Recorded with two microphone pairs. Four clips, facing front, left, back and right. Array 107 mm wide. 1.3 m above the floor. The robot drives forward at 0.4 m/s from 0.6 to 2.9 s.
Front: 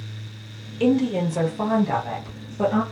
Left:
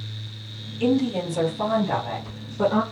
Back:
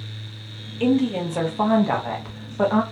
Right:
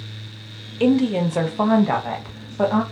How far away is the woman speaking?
About 0.6 m.